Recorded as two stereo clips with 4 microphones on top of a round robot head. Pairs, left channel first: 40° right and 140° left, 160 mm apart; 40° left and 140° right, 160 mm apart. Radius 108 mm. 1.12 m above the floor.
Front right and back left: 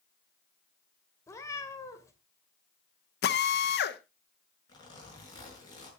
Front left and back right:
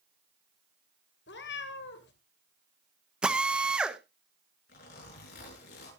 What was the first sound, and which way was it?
A cat meowing, 30° left.